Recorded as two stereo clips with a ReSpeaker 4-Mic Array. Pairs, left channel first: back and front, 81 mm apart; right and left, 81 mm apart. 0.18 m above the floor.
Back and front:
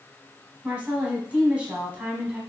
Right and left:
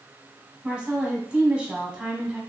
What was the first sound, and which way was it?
A woman speaking, 40° left.